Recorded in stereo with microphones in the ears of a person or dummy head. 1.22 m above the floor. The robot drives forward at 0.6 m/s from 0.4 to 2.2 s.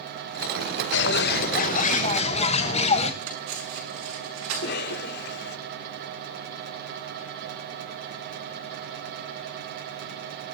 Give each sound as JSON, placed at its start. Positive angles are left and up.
{"t": 0.9, "sound": "a bird", "side_deg": 55, "distance_m": 0.9}
{"t": 3.2, "sound": "cutlery clinking", "side_deg": -80, "distance_m": 6.5}
{"t": 4.5, "sound": "a cough", "side_deg": 65, "distance_m": 3.0}